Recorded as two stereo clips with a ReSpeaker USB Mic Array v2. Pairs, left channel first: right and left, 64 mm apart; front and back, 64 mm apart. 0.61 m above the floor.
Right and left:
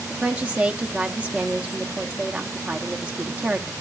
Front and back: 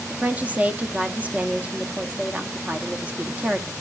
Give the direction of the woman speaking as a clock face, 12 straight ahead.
7 o'clock.